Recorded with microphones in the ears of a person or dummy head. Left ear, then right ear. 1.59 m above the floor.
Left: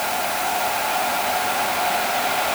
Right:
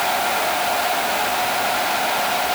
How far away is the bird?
No bird in this recording.